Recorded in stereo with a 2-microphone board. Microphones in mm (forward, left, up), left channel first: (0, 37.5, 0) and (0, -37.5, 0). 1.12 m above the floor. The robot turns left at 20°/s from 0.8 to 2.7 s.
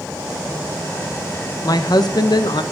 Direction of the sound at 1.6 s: 55° left (ahead or behind).